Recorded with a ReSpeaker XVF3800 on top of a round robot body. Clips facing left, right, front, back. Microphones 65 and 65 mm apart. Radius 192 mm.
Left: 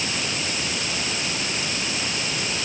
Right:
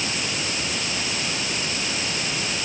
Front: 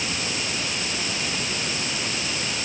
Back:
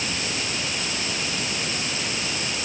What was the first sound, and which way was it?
Only background noise.